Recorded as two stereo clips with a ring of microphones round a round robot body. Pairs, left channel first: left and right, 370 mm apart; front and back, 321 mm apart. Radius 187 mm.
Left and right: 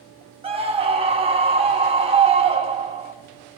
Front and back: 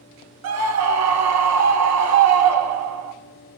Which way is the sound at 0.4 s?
160° right.